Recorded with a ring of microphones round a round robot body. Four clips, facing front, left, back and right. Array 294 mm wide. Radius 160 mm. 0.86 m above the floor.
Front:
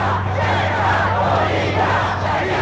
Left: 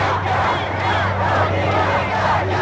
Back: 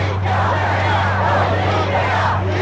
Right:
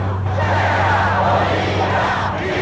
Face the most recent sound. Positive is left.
No sound to turn to.